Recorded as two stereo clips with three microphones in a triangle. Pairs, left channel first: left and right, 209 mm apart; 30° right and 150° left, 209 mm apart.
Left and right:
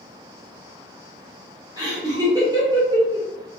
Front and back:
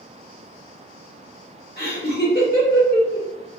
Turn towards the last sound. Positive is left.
turn(degrees=-20)